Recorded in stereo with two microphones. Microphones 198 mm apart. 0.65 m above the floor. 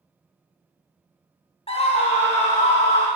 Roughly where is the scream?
Left.